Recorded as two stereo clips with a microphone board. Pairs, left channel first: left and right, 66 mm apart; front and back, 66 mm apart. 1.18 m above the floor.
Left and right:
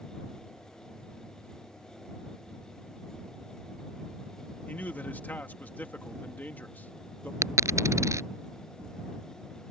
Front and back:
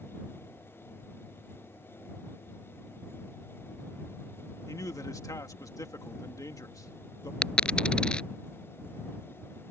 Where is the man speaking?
25° left.